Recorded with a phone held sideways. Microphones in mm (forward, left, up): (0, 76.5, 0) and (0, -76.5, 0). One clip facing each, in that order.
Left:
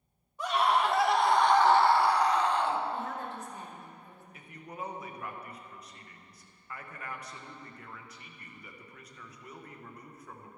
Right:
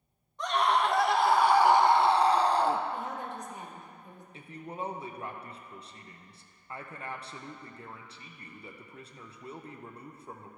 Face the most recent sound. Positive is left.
turn(degrees=-30)  # may be behind; listen again after turning